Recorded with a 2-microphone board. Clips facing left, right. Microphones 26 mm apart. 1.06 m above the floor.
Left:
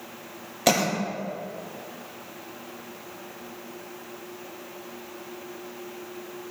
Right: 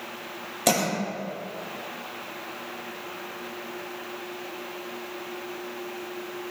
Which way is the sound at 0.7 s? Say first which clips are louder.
Left 2 dB; 10° left (ahead or behind).